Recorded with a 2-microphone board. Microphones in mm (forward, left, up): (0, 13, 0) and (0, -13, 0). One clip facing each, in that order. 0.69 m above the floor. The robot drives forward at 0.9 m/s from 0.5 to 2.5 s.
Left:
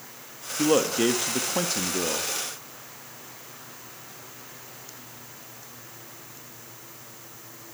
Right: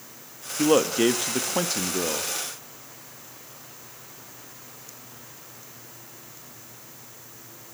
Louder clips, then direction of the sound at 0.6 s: Right 2 dB; 5° right (ahead or behind).